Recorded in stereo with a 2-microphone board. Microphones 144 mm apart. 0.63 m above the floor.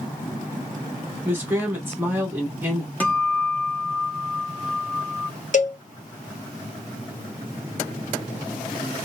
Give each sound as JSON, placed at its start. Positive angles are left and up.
{"t": 1.2, "sound": "a man speaking", "side_deg": -15, "distance_m": 1.2}
{"t": 3.0, "sound": "a guitar", "side_deg": 10, "distance_m": 0.8}
{"t": 5.5, "sound": "a cowbell", "side_deg": 55, "distance_m": 0.6}